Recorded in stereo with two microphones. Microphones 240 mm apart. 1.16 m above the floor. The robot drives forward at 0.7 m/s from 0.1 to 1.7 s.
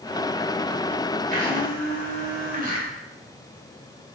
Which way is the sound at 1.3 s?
40° right (ahead or behind).